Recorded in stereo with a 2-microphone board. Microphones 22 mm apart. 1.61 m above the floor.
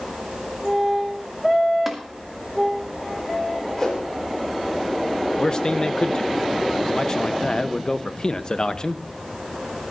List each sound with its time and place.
1.9 s tapping: 5° right (ahead or behind), 2.0 m
3.8 s a whoosh: 10° left (ahead or behind), 4 m
5.4 s a man speaking: 30° left (ahead or behind), 0.7 m